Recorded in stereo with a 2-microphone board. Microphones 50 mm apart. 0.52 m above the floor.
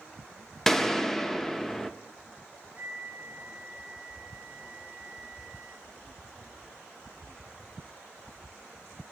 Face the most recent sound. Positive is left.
turn(degrees=-20)  # may be behind; listen again after turning